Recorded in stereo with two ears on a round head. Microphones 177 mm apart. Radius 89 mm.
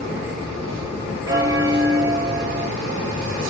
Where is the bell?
20° right (ahead or behind), 1.1 m.